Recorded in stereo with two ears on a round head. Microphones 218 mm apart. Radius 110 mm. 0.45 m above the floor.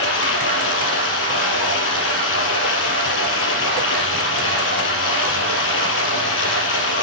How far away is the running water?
About 4 m.